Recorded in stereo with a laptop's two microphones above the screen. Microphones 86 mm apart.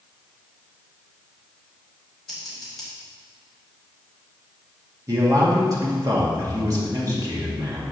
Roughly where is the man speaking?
Right.